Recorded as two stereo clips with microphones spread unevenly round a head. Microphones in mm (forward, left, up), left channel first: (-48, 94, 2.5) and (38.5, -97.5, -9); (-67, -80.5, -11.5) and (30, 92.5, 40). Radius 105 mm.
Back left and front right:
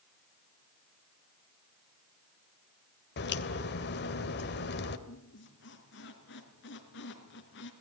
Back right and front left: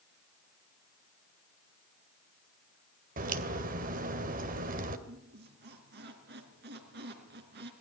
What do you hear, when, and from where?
3.2 s a crack: 85° left, 2 m
5.1 s a squeak: 85° left, 3.5 m